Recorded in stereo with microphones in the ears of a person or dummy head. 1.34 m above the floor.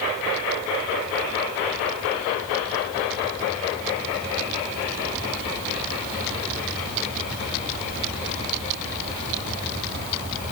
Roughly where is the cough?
No cough in this recording.